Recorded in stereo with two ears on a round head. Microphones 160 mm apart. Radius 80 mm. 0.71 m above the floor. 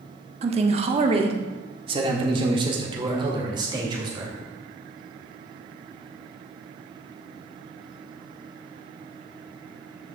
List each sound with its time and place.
0.4 s a man speaking: 35° right (ahead or behind), 1.0 m; by 4.3 s 25° right (ahead or behind), 3 m